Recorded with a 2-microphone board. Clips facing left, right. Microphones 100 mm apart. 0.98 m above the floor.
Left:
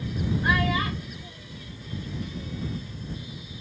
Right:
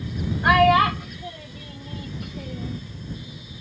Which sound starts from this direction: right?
A child speaking, at 0.4 s.